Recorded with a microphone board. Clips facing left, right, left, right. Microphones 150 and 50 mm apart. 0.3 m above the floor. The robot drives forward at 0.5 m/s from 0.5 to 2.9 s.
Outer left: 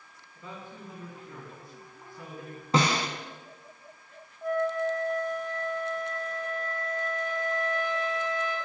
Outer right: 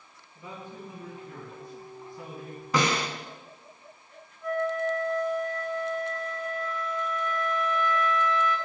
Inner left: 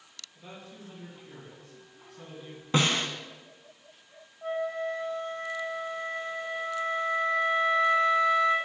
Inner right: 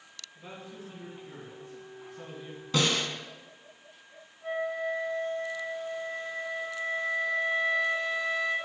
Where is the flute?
50° left (ahead or behind), 2 m.